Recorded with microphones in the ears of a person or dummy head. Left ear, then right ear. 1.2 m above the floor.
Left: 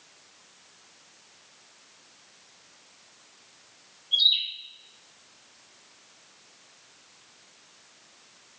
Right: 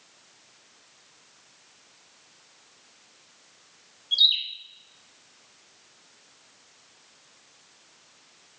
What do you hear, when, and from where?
4.1 s a bird: 65° right (ahead or behind), 1.2 m